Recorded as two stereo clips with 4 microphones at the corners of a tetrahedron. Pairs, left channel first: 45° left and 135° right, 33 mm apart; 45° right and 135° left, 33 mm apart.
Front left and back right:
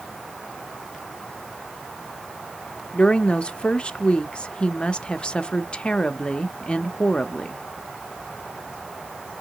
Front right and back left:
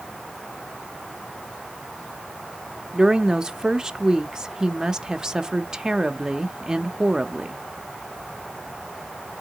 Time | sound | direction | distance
2.9 | a woman speaking | 75° left | 0.7 m